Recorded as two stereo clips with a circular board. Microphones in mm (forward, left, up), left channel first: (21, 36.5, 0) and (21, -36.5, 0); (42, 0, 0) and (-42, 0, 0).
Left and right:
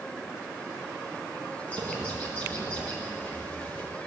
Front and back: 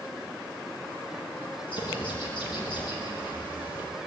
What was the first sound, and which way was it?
A bird, 20° left.